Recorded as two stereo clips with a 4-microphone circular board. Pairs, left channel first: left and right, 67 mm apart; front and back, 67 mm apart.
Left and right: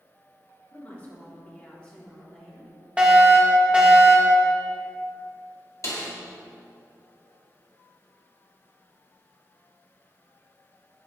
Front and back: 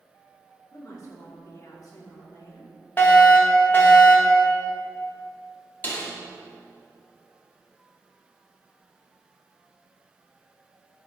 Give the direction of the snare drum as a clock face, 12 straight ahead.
10 o'clock.